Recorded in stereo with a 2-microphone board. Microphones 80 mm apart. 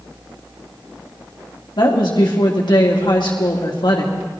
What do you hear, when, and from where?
1.8 s a woman speaking: 70° left (ahead or behind), 2.5 m